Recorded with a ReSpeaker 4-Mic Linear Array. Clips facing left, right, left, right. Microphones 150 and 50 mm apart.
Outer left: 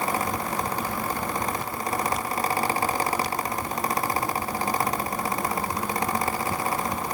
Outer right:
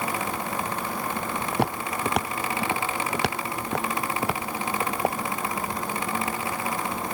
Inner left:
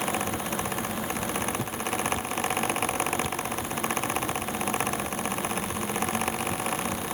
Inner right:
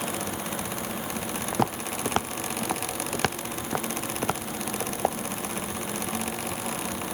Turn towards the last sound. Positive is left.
turn(degrees=-65)  # may be behind; listen again after turning